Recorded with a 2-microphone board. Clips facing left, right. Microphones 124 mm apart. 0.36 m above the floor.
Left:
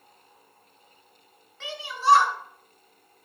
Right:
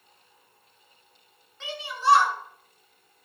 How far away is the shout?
About 4.5 m.